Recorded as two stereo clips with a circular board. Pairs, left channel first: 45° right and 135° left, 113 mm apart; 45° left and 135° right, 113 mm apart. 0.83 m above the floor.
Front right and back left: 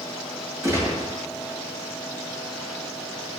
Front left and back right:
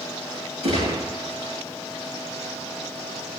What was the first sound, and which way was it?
A gunshot, 160° right.